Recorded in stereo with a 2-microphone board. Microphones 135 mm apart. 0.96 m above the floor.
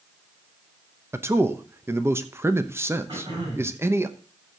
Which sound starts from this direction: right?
Throat clearing, at 3.1 s.